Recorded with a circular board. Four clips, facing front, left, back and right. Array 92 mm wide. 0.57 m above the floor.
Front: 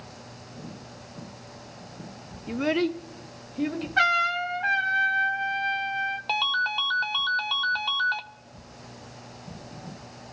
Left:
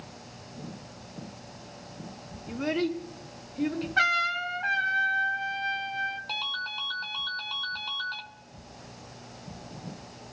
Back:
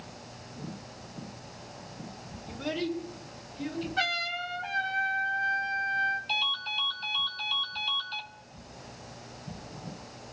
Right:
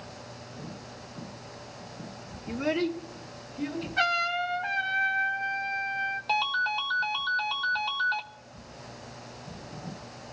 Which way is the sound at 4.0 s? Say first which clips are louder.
Even, front 13 dB; 35° left.